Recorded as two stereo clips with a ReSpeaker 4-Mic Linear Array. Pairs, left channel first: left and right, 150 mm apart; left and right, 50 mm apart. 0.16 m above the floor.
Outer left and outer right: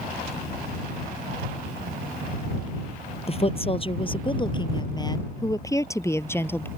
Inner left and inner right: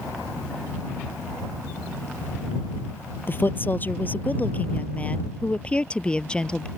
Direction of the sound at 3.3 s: 40° left (ahead or behind).